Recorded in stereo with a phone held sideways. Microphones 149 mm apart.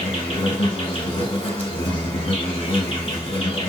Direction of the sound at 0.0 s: 40° left (ahead or behind).